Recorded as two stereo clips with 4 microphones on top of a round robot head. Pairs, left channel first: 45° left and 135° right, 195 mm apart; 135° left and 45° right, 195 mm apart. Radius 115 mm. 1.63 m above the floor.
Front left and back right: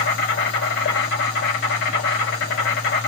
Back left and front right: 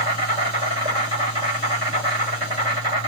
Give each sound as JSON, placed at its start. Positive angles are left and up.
{"t": 0.0, "sound": "an insect", "azimuth_deg": 20, "distance_m": 4.0}